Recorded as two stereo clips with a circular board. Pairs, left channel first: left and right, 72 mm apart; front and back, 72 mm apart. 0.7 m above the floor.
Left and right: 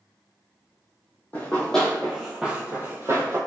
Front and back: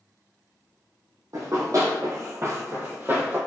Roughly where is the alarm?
No alarm in this recording.